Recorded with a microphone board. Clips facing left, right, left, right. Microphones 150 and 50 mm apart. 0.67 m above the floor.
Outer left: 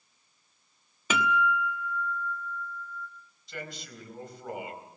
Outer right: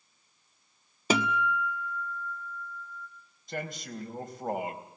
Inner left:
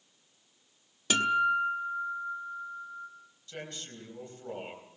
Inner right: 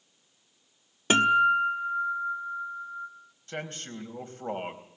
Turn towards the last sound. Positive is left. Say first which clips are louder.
# outer right 5 dB, inner right 5 dB
turn(degrees=-50)  # may be behind; listen again after turning